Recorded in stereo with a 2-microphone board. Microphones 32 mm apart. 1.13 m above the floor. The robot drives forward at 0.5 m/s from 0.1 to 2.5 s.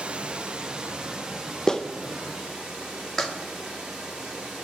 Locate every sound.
0.0 s running water: 30° right (ahead or behind), 0.8 m; by 4.7 s 15° right (ahead or behind), 2.0 m
1.7 s a clap: 15° left (ahead or behind), 0.5 m; by 3.3 s 10° left (ahead or behind), 0.9 m